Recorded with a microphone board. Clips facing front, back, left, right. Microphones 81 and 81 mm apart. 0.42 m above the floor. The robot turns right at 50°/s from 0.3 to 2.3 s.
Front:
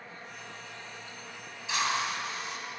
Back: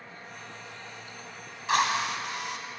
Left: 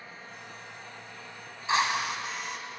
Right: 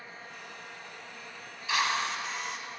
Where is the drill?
150° left, 1.6 m; by 2.6 s straight behind, 1.6 m.